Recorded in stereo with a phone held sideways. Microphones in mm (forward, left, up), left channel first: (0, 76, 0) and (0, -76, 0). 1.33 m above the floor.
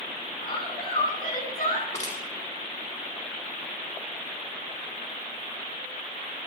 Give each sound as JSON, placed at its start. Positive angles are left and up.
{"t": 0.4, "sound": "a woman speaking", "side_deg": 85, "distance_m": 9.5}
{"t": 1.9, "sound": "crushing", "side_deg": 50, "distance_m": 5.0}